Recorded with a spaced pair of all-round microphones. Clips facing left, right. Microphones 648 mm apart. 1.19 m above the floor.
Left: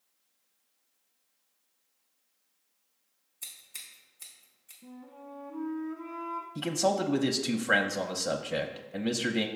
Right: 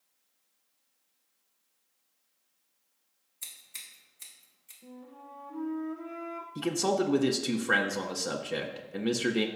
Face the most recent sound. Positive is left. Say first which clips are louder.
# right 1 dB
turn(degrees=10)  # may be behind; listen again after turning